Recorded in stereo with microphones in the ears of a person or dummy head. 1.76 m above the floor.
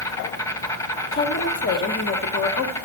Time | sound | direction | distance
0.0 | an insect | 20° left (ahead or behind) | 1.2 m
1.1 | a woman speaking | 50° left (ahead or behind) | 1.3 m